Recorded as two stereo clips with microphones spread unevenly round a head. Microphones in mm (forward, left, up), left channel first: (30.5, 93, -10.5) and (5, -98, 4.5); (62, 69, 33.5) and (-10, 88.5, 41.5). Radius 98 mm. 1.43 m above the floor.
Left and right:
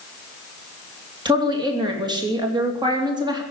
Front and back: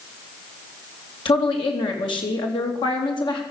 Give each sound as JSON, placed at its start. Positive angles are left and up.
{"t": 1.2, "sound": "a woman speaking", "azimuth_deg": -30, "distance_m": 2.5}